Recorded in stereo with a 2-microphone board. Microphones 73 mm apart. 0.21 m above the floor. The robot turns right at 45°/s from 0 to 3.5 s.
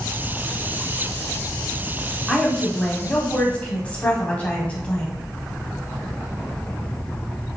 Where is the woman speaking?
5° right (ahead or behind), 1.0 m; by 5.2 s 20° left (ahead or behind), 1.0 m.